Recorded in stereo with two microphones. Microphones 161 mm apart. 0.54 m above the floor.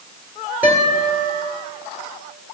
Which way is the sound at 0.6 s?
10° right (ahead or behind).